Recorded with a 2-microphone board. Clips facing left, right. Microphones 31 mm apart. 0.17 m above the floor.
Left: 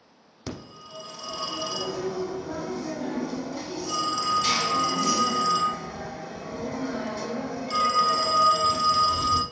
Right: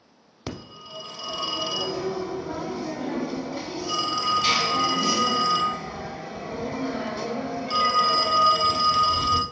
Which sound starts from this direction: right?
A phone ringing, at 0.5 s.